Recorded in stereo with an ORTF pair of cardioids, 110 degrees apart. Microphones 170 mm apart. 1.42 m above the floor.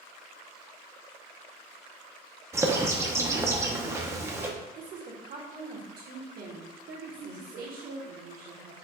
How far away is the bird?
About 0.6 m.